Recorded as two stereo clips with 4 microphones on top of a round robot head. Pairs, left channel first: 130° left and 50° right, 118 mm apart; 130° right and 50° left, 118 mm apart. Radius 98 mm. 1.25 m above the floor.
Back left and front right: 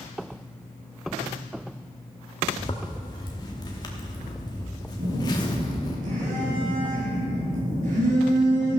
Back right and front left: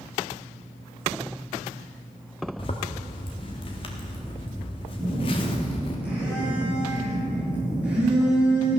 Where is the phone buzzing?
30° right, 6 m.